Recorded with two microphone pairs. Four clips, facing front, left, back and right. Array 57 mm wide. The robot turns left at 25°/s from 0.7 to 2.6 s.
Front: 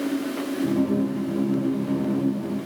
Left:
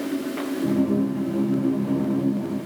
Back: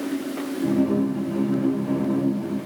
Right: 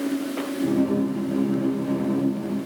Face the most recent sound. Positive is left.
No sound to turn to.